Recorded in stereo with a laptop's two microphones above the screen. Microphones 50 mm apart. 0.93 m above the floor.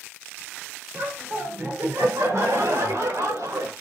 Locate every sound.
0.9 s laughter: 40° right (ahead or behind), 2.5 m; by 3.7 s 70° right (ahead or behind), 4 m